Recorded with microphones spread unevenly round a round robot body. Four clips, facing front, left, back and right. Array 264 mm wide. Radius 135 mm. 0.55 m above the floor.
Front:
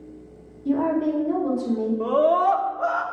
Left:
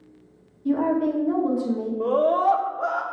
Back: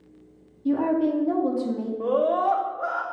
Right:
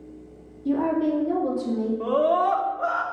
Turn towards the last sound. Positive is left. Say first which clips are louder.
# left 2 dB, front 2 dB
turn(degrees=-15)